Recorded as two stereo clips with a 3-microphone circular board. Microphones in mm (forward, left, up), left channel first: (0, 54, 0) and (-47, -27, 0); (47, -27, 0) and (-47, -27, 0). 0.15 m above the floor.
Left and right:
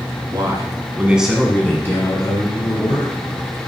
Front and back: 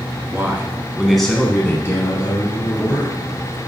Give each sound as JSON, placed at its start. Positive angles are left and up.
{"t": 0.3, "sound": "a man speaking", "azimuth_deg": -125, "distance_m": 1.9}